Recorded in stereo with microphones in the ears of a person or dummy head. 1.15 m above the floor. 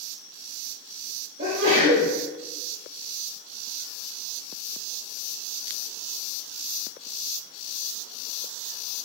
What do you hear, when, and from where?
1.4 s a sneeze: 45° right (ahead or behind), 4 m